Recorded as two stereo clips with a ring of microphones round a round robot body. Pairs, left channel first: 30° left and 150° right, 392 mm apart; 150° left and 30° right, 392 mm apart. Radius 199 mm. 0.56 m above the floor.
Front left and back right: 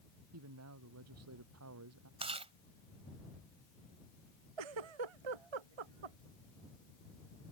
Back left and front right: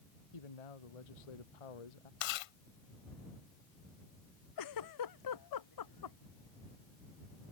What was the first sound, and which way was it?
A man speaking, 155° left.